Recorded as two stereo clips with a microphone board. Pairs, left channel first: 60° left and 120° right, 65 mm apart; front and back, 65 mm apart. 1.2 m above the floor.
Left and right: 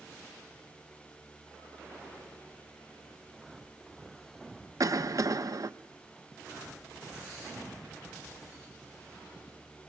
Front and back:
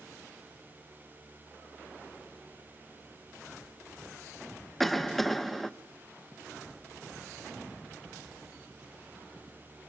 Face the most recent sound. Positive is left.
turn(degrees=-90)